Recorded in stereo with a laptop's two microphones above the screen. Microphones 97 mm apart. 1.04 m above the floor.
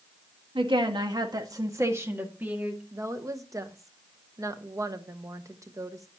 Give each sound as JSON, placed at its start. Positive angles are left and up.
{"t": 0.6, "sound": "a woman speaking", "side_deg": -65, "distance_m": 1.6}
{"t": 2.9, "sound": "a woman speaking", "side_deg": -35, "distance_m": 0.8}